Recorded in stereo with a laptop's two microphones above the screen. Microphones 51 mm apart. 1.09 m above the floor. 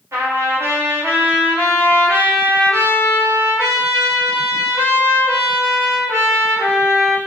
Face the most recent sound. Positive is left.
turn(degrees=-80)